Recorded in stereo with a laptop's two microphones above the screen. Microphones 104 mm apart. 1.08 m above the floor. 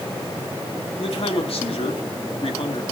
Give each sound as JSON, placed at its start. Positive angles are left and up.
{"t": 1.0, "sound": "a man speaking", "side_deg": 65, "distance_m": 3.0}